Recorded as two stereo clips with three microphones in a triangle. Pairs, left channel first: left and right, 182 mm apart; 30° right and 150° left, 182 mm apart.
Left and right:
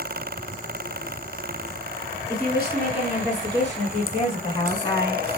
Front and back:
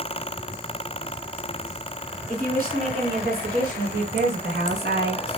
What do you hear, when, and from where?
2.3 s a woman speaking: 115° left, 2.0 m; by 5.2 s 165° left, 3 m